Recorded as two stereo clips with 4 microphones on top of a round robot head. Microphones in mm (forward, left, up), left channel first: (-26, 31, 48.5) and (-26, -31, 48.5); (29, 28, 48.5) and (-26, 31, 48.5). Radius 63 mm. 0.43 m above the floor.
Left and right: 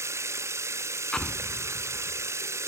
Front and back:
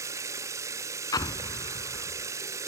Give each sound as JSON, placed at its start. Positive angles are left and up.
{"t": 0.0, "sound": "running water", "azimuth_deg": -135}
{"t": 1.1, "sound": "an explosion", "azimuth_deg": 10}